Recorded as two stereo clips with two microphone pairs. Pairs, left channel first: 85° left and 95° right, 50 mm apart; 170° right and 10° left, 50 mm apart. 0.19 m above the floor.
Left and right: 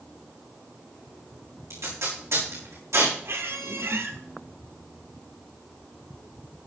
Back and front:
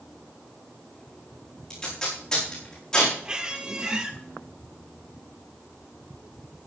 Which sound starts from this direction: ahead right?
A squeak, at 3.2 s.